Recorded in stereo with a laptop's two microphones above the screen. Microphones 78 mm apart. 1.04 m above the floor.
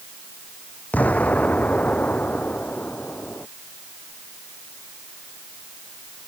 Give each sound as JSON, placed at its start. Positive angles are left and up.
{"t": 0.9, "sound": "an explosion", "side_deg": 20}